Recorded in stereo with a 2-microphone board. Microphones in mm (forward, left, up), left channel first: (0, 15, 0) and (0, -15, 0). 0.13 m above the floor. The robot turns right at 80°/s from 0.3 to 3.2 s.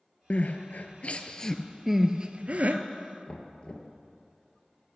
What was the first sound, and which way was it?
Crying, 55° left (ahead or behind).